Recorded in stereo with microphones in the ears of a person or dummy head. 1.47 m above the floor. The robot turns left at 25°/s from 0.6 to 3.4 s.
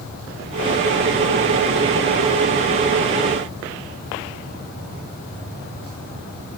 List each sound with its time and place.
Only background noise.